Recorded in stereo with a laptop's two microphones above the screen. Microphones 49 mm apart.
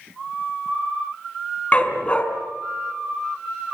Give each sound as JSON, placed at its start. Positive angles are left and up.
{"t": 1.7, "sound": "a dog barking", "side_deg": 25, "distance_m": 4.0}